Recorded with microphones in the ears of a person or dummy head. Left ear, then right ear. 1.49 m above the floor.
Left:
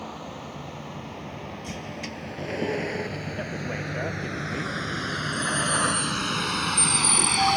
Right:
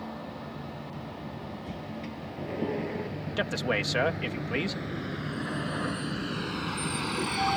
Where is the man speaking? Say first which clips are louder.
Right 8 dB; 75° right (ahead or behind).